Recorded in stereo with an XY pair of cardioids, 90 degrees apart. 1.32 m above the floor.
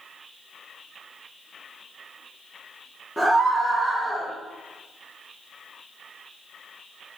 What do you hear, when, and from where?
3.2 s a scream: straight ahead, 2 m